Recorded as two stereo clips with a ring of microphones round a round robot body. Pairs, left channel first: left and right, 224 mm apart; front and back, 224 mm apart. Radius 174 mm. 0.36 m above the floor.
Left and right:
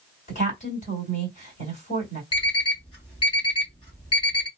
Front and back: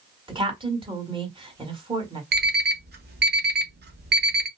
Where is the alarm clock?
150° left, 1.0 m.